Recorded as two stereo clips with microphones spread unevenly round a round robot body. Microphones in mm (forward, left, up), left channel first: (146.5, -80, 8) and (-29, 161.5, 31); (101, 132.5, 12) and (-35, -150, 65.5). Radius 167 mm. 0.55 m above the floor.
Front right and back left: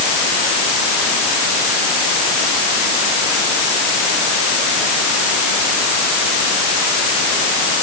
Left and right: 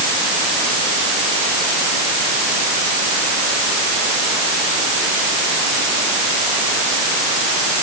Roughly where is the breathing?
I don't hear breathing.